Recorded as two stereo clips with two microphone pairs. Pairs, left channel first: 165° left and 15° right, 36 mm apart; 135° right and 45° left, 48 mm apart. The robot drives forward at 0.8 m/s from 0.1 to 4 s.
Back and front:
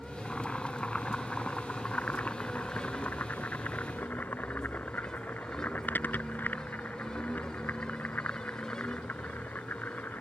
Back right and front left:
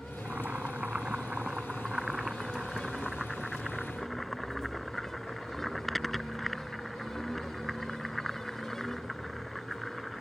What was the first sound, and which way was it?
Boiling, 95° left.